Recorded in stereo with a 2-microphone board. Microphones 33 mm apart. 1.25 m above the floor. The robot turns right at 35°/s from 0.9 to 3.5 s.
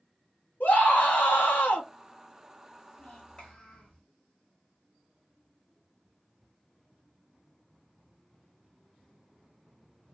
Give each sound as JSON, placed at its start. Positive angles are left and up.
{"t": 0.6, "sound": "a scream", "azimuth_deg": 60, "distance_m": 1.3}
{"t": 3.0, "sound": "a child speaking", "side_deg": 40, "distance_m": 1.8}